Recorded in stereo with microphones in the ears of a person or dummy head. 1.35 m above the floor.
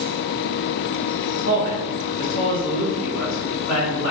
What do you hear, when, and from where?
1.4 s a man speaking: 75° left (ahead or behind), 1.2 m